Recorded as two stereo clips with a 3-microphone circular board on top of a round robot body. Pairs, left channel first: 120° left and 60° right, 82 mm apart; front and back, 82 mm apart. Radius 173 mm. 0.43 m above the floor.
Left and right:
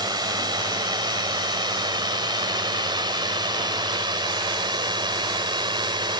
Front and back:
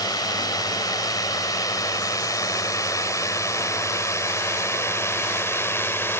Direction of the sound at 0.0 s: 35° right.